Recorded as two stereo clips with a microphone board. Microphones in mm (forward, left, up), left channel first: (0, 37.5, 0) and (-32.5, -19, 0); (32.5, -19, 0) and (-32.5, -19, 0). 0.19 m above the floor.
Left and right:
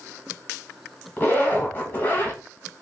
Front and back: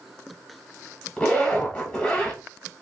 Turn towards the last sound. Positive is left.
turn(degrees=55)